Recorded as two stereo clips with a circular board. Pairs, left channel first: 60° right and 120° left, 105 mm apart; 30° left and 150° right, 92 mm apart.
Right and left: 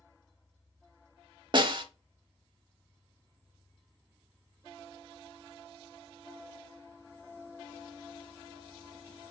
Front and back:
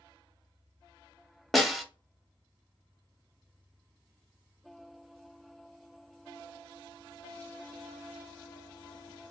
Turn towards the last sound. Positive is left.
turn(degrees=120)